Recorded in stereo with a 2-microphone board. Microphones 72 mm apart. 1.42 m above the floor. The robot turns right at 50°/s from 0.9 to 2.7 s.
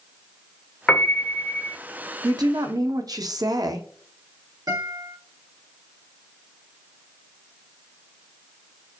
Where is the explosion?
I don't hear an explosion.